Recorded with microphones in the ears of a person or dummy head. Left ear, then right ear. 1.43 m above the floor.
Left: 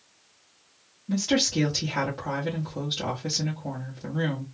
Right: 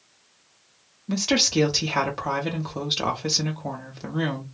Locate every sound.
1.1 s a woman speaking: 35° right (ahead or behind), 0.7 m